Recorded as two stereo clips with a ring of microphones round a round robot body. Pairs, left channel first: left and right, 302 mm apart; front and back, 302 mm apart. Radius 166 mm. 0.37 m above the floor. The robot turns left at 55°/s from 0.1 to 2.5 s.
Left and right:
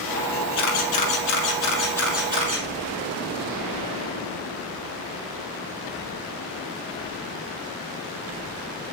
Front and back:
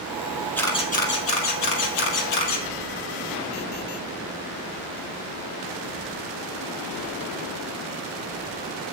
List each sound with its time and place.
0.6 s a camera shutter: 85° left, 2.5 m; by 2.6 s 20° right, 2.5 m